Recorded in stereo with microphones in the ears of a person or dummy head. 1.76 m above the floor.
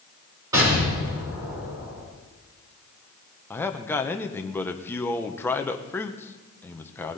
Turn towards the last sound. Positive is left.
turn(degrees=10)  # may be behind; listen again after turning